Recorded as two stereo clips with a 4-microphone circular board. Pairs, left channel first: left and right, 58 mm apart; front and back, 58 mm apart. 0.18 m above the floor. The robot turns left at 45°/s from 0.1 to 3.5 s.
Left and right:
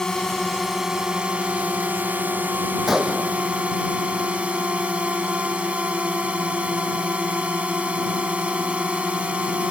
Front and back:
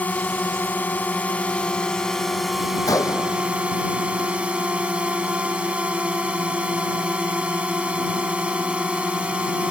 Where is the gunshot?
5° right; by 9.2 s 30° right.